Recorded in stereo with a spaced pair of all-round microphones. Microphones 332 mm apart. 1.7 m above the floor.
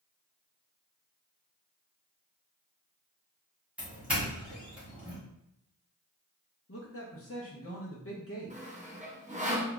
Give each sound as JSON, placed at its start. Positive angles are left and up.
{"t": 3.8, "sound": "a doorbell", "side_deg": -5, "distance_m": 1.3}
{"t": 6.7, "sound": "a man speaking", "side_deg": 40, "distance_m": 0.7}
{"t": 8.5, "sound": "sawing", "side_deg": -20, "distance_m": 0.7}